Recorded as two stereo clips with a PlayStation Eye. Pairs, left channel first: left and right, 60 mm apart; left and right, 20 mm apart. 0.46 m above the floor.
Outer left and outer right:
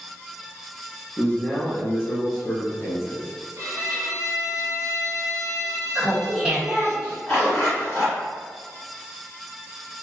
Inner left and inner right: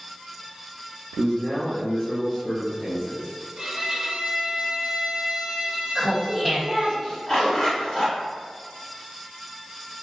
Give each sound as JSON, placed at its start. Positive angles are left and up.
{"t": 1.2, "sound": "a man speaking", "side_deg": 15, "distance_m": 0.8}
{"t": 3.6, "sound": "a violin", "side_deg": -60, "distance_m": 0.8}
{"t": 6.0, "sound": "laughter", "side_deg": -15, "distance_m": 1.0}
{"t": 7.3, "sound": "a zipper", "side_deg": 35, "distance_m": 2.0}